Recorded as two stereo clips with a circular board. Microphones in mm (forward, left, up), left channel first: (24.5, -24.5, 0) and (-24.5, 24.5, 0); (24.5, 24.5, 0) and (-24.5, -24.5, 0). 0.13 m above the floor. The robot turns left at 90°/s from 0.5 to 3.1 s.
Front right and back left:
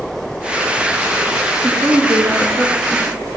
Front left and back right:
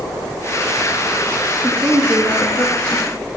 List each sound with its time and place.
1.6 s a woman speaking: 155° right, 1.9 m; by 3.0 s 75° left, 1.9 m